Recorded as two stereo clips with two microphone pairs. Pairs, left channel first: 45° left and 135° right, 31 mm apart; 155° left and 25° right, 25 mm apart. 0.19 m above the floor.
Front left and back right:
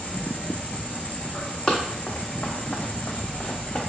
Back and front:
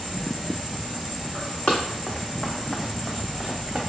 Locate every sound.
0.0 s an insect: 65° left, 1.1 m
1.7 s running footsteps: 105° left, 0.7 m; by 3.8 s 20° left, 1.1 m